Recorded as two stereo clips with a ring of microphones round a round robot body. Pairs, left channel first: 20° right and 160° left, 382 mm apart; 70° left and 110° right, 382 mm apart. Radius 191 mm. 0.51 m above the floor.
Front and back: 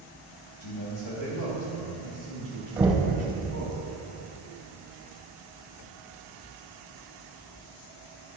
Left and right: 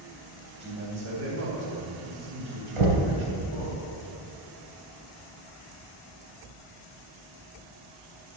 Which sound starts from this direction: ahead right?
A man speaking, at 0.6 s.